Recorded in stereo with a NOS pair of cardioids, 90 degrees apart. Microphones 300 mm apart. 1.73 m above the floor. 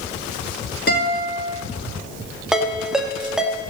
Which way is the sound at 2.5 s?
Straight ahead.